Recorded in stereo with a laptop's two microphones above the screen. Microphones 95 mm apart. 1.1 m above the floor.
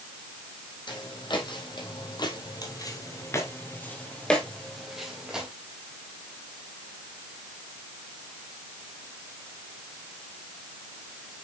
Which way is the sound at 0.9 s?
55° left (ahead or behind).